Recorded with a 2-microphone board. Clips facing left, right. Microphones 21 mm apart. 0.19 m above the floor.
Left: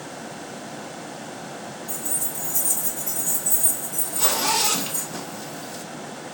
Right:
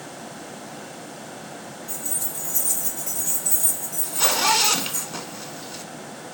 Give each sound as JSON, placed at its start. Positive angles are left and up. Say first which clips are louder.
{"t": 1.9, "sound": "keys jangling", "louder": "even", "side_deg": -40, "distance_m": 2.0}
{"t": 4.0, "sound": "a zipper", "louder": "right 3 dB", "side_deg": -30, "distance_m": 0.5}